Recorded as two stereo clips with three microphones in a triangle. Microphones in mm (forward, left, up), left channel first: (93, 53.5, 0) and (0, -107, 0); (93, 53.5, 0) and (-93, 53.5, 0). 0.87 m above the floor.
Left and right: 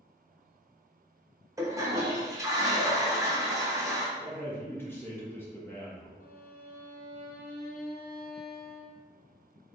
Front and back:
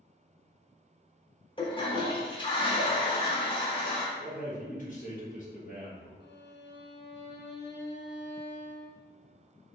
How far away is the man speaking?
About 0.9 m.